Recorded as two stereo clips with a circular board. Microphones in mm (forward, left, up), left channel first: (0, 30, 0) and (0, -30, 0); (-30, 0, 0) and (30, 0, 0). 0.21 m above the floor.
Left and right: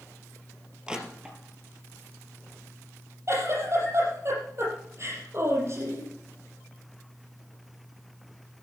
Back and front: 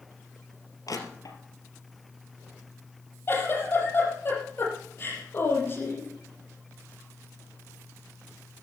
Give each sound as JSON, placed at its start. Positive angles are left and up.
{"t": 0.9, "sound": "crushing", "azimuth_deg": -165, "distance_m": 3.0}
{"t": 3.3, "sound": "a giggle", "azimuth_deg": -130, "distance_m": 6.5}